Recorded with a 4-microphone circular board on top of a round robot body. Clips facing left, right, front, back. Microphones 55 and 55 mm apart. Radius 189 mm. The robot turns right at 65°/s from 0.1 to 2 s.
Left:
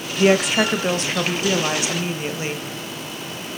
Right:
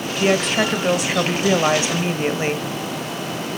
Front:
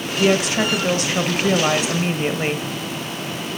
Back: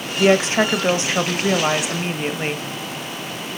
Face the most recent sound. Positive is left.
turn(degrees=-90)